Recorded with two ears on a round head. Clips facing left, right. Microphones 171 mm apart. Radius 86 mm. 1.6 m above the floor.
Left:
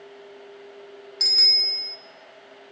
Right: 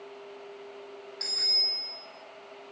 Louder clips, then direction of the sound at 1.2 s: Left 2 dB; 60° left (ahead or behind).